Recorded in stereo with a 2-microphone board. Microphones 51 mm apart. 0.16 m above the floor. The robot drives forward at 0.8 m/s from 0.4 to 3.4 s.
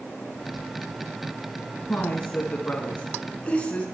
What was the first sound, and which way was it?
A woman speaking, 30° left (ahead or behind).